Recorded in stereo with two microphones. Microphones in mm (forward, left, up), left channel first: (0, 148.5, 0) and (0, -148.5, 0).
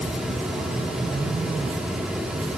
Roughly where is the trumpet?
I don't hear a trumpet.